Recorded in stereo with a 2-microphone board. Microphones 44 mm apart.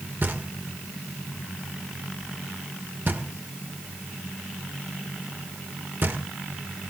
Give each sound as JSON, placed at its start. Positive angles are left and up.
{"t": 0.2, "sound": "knocking", "side_deg": -50, "distance_m": 2.0}